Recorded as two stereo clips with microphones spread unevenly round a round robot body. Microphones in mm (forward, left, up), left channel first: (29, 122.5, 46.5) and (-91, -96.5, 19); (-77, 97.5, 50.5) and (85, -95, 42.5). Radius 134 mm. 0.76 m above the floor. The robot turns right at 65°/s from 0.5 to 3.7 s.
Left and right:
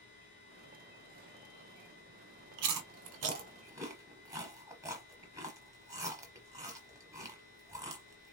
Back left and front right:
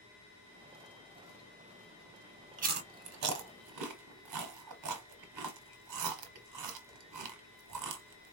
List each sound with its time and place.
2.6 s chewing: 115° right, 1.0 m; by 8.3 s 40° right, 1.0 m